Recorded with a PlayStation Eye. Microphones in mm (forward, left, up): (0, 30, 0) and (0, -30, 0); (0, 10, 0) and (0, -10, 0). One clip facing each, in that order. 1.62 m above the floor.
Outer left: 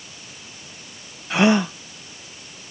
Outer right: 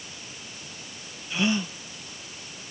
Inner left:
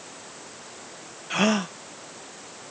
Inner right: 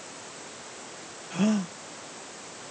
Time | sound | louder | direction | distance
1.3 | a gasp | outer left 9 dB, inner left 4 dB | 70° left (ahead or behind) | ?